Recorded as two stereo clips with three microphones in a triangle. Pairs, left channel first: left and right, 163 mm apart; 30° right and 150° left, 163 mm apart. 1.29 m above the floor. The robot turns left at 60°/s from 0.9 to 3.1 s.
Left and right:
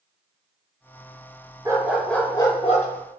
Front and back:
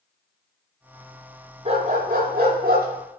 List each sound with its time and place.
1.6 s a dog barking: 160° right, 6 m; by 2.9 s 130° left, 6 m